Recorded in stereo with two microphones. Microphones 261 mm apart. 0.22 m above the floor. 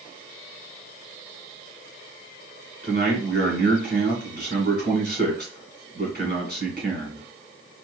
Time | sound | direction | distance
2.8 | a man speaking | 40° right (ahead or behind) | 2.5 m